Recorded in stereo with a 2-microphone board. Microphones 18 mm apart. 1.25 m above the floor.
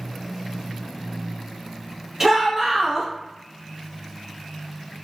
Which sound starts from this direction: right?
A shout, at 2.2 s.